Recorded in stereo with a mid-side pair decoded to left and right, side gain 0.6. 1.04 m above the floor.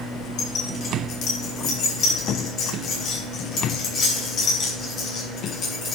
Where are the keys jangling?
60° left, 4.5 m; by 6.0 s 40° left, 7 m.